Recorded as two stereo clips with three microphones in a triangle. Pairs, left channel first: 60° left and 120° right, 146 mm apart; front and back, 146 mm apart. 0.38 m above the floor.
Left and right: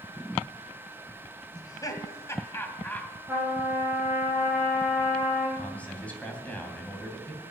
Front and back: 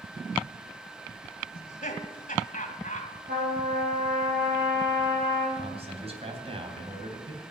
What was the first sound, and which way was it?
Laughter, straight ahead.